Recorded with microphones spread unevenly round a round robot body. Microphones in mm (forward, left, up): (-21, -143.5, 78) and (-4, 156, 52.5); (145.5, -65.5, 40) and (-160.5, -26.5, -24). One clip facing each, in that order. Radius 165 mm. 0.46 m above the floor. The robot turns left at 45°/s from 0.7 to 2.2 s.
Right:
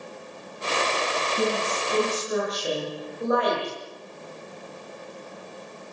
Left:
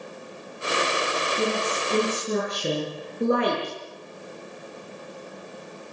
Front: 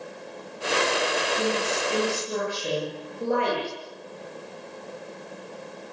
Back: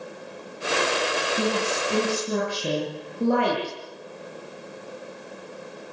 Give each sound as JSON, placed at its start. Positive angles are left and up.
{"t": 1.4, "sound": "a woman speaking", "azimuth_deg": -175, "distance_m": 9.0}